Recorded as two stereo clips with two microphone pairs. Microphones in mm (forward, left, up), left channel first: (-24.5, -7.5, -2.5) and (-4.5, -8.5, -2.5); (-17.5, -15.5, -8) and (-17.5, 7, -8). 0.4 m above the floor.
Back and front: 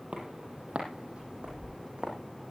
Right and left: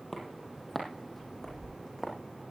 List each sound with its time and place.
0.1 s footsteps: 10° right, 9 m